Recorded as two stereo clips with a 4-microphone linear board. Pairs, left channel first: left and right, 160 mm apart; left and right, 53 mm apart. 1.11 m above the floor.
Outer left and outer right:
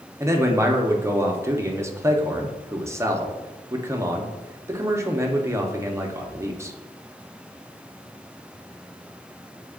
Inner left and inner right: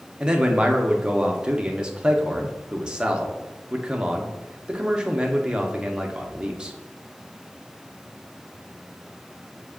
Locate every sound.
0.2 s a man speaking: 15° right (ahead or behind), 0.6 m